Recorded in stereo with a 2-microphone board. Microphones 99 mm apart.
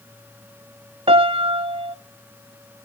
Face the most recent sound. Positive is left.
turn(degrees=-85)